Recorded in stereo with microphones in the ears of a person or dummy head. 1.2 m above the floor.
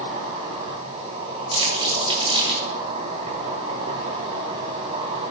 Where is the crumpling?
30° right (ahead or behind), 2 m.